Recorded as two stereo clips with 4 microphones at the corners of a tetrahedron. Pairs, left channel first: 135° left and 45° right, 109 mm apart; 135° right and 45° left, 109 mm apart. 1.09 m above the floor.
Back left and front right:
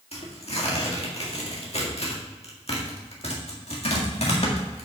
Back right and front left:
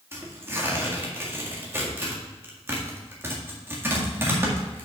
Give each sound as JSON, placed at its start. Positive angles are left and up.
{"t": 0.1, "sound": "tearing paper", "azimuth_deg": 115, "distance_m": 1.8}